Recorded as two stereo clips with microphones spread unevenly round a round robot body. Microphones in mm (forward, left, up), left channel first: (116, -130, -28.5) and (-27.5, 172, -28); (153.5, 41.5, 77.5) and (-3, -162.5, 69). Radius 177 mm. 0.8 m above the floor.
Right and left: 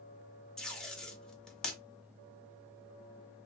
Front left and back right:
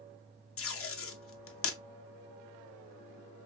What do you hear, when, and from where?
0.6 s tape being pulled: 25° left, 0.6 m